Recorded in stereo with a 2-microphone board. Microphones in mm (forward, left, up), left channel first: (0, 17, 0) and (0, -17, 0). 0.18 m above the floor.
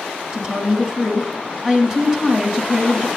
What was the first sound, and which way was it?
A woman speaking, 15° right (ahead or behind).